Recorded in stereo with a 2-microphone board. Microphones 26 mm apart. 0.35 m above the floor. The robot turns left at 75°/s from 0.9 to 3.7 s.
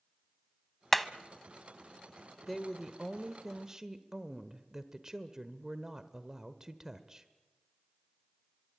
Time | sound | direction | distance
0.9 | hammering | 10° left (ahead or behind) | 0.8 m
2.5 | a woman speaking | 5° left (ahead or behind) | 1.1 m